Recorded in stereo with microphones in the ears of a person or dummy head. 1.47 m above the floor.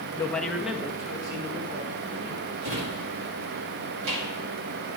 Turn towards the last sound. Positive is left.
turn(degrees=-70)  # may be behind; listen again after turning